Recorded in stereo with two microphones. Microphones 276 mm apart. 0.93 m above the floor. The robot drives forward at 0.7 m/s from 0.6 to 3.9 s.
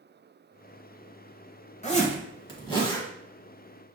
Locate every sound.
1.8 s a zipper: 25° left (ahead or behind), 0.8 m; by 3.1 s 15° left (ahead or behind), 1.5 m